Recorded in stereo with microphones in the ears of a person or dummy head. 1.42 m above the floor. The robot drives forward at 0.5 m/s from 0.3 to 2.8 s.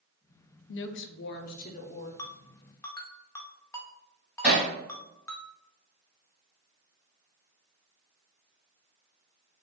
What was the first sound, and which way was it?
A woman speaking, 60° left (ahead or behind).